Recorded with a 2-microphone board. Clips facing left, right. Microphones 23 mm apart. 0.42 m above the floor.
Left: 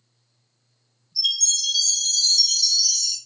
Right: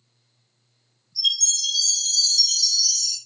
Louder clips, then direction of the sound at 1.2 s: Even; 20° left (ahead or behind).